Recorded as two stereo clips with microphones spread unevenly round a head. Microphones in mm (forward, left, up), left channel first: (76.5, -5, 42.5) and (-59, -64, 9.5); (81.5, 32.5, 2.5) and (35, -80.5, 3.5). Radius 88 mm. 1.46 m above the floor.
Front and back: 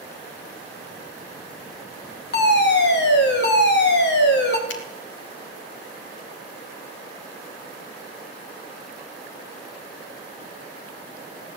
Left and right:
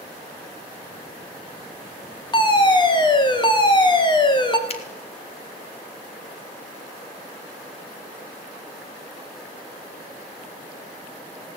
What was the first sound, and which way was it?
A fire alarm, 15° left.